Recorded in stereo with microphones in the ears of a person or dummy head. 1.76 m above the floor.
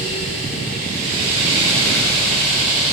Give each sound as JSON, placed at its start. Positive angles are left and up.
{"t": 0.0, "sound": "a fan", "side_deg": 40, "distance_m": 7.5}